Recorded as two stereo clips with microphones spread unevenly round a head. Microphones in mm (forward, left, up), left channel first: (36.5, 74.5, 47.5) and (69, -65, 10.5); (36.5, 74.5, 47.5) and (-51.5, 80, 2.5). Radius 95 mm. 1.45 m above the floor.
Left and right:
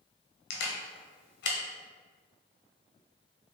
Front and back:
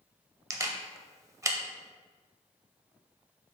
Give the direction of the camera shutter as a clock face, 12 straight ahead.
8 o'clock.